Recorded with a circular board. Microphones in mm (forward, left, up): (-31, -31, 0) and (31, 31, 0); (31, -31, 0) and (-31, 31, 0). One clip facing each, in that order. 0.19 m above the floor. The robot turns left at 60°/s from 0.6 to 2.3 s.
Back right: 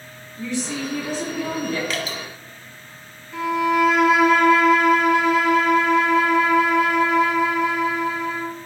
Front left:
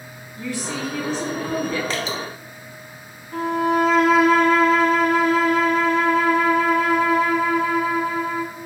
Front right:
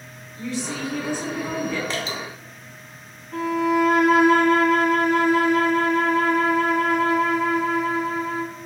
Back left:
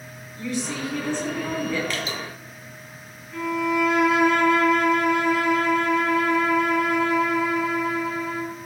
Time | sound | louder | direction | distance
0.4 | a woman speaking | back right 1 dB, even | 85° right | 1.3 m
1.9 | dripping | front left 2 dB, front right 1 dB | 5° left | 0.9 m
3.3 | a violin | even, front right 3 dB | 5° right | 0.6 m